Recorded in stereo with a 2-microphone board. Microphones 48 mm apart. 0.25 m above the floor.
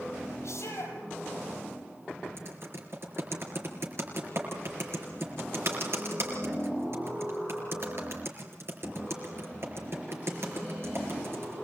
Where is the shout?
65° left (ahead or behind), 7.5 m.